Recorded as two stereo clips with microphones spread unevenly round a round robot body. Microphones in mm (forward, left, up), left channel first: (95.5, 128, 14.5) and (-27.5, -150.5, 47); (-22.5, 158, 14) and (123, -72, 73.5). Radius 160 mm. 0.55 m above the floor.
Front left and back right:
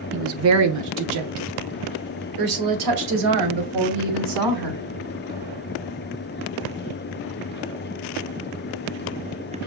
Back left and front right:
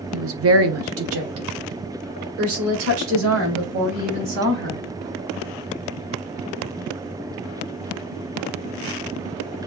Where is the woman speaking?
80° right, 0.8 m; by 4.8 s 110° right, 4 m.